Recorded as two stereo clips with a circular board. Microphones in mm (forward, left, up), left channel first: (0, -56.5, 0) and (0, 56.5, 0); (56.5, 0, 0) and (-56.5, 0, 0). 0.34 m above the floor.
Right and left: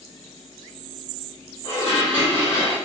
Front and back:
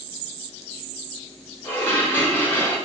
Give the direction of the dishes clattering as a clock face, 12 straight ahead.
2 o'clock.